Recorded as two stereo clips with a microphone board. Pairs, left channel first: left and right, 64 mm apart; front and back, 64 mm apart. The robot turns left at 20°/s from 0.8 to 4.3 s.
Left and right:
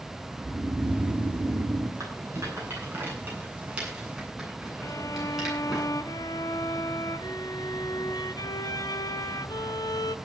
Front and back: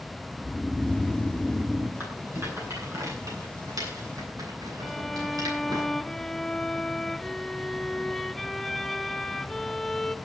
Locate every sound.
0.4 s snoring: 75° right, 5.5 m; by 1.9 s 100° right, 5.5 m
2.0 s a rattle: 125° right, 9 m; by 5.8 s 175° right, 9 m
4.8 s a violin: 90° left, 0.7 m